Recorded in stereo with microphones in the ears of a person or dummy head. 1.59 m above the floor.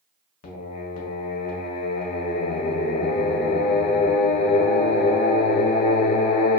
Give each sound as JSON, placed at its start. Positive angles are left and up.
{"t": 0.4, "sound": "singing", "side_deg": 45, "distance_m": 0.5}